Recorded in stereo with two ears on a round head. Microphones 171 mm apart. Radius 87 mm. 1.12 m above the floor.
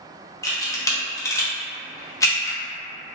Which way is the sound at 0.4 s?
15° left (ahead or behind).